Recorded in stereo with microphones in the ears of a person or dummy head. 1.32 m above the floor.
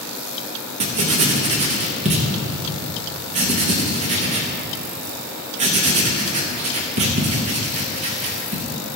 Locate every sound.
0.8 s writing: 35° right (ahead or behind), 0.7 m